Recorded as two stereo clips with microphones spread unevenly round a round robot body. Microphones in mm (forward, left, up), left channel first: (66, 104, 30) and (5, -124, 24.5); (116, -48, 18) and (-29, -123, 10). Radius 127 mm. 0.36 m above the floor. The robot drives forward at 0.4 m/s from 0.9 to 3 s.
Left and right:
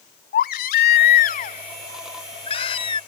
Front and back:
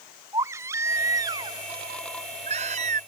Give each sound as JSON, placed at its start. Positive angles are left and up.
{"t": 0.3, "sound": "a baby crying", "azimuth_deg": 130}